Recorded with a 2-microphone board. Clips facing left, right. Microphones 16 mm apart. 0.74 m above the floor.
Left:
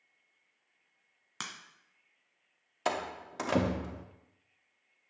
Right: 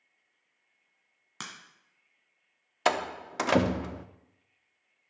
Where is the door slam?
45° right (ahead or behind), 0.6 m.